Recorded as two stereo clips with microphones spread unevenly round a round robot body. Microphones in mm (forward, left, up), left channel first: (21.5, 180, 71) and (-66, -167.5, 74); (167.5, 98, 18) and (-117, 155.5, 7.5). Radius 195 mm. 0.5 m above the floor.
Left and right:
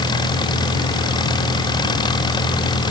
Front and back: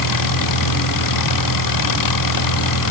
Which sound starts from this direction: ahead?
An engine running, at 0.0 s.